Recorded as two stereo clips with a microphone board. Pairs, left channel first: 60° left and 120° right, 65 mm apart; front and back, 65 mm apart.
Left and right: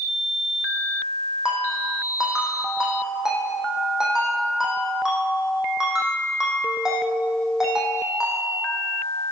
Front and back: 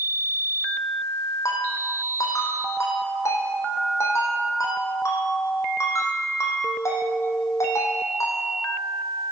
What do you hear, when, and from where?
1.4 s a ringtone: 40° right, 4 m